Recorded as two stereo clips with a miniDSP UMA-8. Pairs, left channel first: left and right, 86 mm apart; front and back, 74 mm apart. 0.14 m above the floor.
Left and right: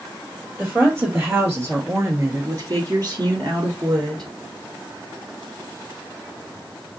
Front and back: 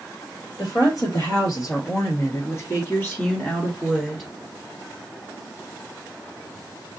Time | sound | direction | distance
0.6 | a woman speaking | 25° right | 3 m